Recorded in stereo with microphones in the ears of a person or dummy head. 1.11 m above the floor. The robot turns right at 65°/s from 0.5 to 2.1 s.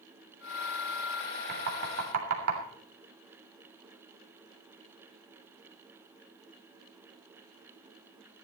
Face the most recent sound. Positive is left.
turn(degrees=-90)